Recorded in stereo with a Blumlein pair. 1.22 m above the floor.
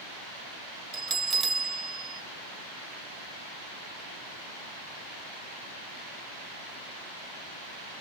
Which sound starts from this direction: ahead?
A bell, at 0.9 s.